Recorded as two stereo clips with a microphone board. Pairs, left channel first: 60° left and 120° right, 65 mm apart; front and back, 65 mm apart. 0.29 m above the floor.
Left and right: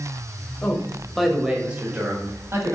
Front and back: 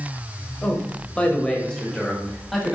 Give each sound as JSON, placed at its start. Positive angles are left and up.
{"t": 0.6, "sound": "a man speaking", "azimuth_deg": 35, "distance_m": 1.5}